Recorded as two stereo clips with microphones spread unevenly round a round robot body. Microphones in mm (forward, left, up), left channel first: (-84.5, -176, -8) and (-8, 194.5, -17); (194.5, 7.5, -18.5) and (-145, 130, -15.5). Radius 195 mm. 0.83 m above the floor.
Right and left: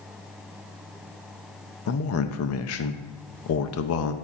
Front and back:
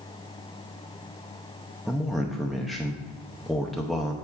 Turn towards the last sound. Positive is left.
turn(degrees=-110)